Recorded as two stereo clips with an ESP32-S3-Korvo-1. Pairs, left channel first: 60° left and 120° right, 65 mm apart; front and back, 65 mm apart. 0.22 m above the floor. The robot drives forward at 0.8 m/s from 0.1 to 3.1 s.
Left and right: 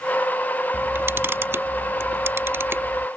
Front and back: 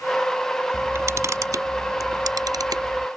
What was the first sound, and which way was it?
A camera shutter, 145° right.